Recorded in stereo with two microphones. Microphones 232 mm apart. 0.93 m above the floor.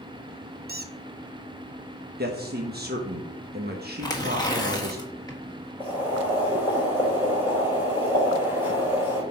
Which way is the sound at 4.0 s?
15° left (ahead or behind).